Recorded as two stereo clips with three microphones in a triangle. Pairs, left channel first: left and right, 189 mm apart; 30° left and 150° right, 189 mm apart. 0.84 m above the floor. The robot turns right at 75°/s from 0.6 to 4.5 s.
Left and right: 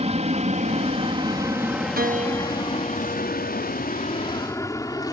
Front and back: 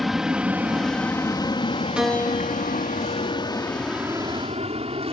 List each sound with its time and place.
0.0 s an aircraft: 60° right; by 5.1 s 155° left
2.0 s a piano: 65° right; by 3.7 s 65° left